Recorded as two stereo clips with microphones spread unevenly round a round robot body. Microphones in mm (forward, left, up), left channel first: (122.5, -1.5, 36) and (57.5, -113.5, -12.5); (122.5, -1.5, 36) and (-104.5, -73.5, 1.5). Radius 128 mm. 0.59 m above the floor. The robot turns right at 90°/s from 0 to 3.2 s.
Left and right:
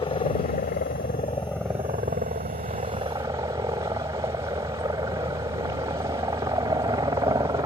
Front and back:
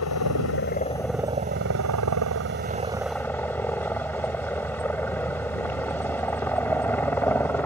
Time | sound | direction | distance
0.0 | a helicopter | 10° left | ?